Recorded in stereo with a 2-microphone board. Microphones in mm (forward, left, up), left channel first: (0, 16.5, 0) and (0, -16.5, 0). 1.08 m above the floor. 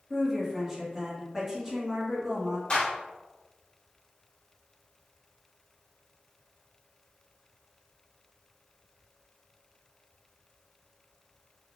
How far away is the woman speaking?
About 1.6 m.